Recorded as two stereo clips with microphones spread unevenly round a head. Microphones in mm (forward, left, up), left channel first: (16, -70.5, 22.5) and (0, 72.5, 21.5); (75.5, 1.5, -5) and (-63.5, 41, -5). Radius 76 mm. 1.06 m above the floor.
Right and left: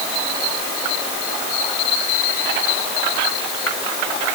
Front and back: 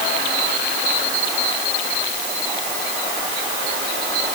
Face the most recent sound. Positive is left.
No sound to turn to.